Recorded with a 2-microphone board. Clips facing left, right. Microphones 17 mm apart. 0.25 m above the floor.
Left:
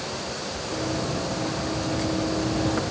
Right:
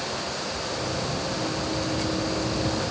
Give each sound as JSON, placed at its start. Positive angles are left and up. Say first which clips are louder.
{"t": 0.7, "sound": "running footsteps", "louder": "left 4 dB", "side_deg": 60, "distance_m": 5.5}